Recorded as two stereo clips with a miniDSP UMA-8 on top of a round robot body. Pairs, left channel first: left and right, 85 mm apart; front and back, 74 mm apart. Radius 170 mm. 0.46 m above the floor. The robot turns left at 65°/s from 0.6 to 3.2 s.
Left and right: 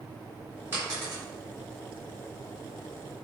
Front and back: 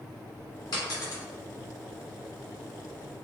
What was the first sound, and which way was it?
A dropped coin, 20° right.